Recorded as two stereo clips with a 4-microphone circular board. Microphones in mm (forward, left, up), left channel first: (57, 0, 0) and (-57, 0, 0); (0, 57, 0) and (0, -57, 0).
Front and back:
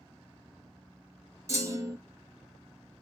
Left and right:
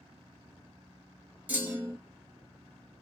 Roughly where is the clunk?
Behind right.